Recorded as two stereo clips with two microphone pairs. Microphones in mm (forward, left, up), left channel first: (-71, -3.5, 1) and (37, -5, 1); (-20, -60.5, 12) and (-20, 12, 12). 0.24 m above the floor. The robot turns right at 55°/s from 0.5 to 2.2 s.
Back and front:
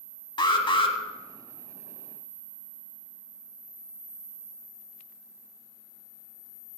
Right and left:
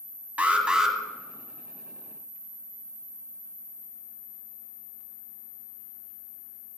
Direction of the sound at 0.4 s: 155° left.